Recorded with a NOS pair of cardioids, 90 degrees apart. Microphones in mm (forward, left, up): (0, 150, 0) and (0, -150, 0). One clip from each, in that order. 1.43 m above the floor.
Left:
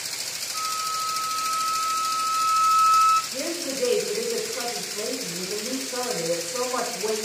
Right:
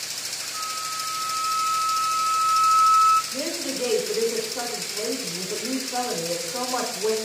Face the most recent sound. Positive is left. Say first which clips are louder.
# even
turn(degrees=-5)